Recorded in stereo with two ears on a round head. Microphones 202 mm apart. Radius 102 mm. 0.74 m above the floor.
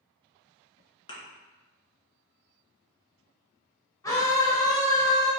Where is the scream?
15° left (ahead or behind), 1.1 m.